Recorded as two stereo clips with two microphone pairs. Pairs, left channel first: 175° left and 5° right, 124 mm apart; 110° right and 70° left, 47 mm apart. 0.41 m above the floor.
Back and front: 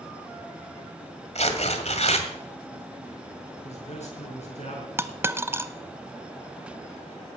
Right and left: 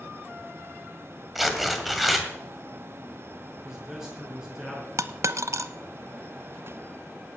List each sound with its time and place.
1.4 s tearing paper: 160° left, 1.9 m
3.6 s a man speaking: 150° left, 6 m
5.0 s a dropped coin: 65° left, 0.7 m